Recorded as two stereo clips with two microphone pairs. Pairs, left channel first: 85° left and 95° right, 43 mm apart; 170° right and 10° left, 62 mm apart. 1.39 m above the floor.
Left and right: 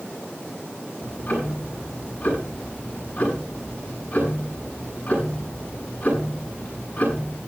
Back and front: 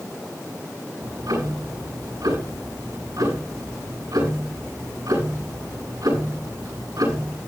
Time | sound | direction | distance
1.0 | ticking | 25° left | 7 m